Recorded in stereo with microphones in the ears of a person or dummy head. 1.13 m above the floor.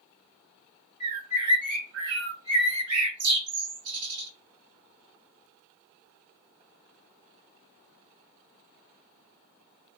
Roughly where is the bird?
Right.